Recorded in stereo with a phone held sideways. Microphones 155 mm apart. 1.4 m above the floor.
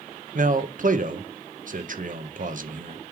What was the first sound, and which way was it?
A man speaking, 60° right (ahead or behind).